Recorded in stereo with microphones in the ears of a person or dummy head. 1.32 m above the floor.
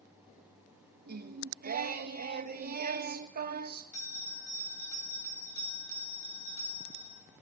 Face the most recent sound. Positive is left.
turn(degrees=20)  # may be behind; listen again after turning